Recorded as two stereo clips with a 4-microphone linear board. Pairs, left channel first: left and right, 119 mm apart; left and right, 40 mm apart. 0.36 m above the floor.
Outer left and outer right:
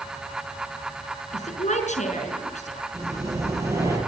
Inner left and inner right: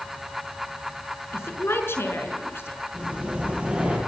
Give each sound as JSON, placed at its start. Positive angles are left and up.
{"t": 1.3, "sound": "a woman speaking", "side_deg": 75, "distance_m": 5.0}
{"t": 2.9, "sound": "breathing", "side_deg": -25, "distance_m": 9.0}